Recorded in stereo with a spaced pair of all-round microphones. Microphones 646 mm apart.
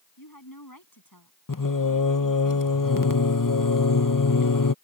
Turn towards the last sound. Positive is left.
turn(degrees=30)  # may be behind; listen again after turning